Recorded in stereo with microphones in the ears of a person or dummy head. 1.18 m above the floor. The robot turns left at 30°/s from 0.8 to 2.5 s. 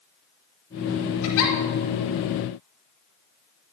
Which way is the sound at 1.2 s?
75° left (ahead or behind).